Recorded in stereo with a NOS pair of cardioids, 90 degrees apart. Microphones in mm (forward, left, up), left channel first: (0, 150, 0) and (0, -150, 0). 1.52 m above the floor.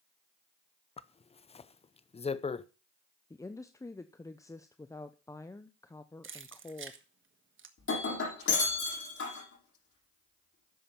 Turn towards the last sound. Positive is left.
turn(degrees=45)